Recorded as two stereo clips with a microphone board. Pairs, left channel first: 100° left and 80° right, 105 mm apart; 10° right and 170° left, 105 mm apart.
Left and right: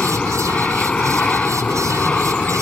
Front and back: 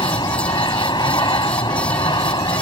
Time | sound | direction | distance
0.0 | an aircraft | 20° left | ?